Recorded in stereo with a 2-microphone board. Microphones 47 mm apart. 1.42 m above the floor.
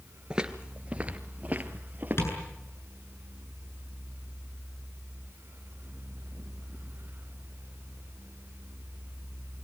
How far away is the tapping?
About 8 m.